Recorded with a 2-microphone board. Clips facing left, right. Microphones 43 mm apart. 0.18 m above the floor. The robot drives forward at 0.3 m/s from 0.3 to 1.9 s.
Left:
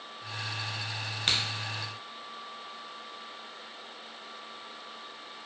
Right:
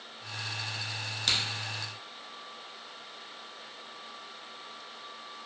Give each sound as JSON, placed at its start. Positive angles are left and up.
{"t": 1.3, "sound": "a crack", "side_deg": 35, "distance_m": 0.8}